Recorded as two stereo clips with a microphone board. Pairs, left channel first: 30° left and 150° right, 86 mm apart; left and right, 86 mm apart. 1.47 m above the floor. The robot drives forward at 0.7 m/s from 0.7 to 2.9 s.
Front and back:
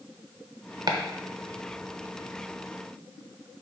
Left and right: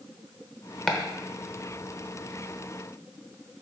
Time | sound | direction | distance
0.9 | chopping | 170° left | 1.0 m